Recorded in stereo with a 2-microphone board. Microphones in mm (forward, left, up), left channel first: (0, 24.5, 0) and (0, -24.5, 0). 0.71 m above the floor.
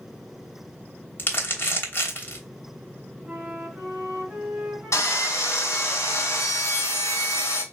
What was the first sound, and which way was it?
Crumpling, 45° left (ahead or behind).